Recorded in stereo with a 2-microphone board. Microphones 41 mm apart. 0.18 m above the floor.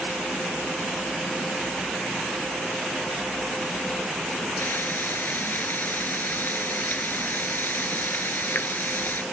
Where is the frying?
55° left (ahead or behind).